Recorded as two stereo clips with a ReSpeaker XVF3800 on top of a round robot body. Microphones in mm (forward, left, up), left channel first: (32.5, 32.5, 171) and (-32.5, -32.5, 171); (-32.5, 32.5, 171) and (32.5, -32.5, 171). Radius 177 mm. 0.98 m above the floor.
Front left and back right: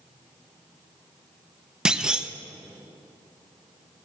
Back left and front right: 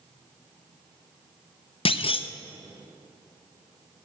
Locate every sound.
1.9 s a clunk: 145° left, 0.7 m